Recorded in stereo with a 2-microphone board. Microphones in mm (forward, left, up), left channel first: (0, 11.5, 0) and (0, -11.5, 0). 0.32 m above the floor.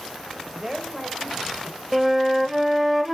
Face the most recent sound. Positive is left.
turn(degrees=-10)  # may be behind; listen again after turning